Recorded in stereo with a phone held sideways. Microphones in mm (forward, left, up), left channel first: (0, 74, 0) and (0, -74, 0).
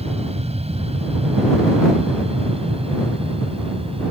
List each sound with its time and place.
0.0 s an aircraft: 45° right (ahead or behind); by 4.1 s 40° right (ahead or behind)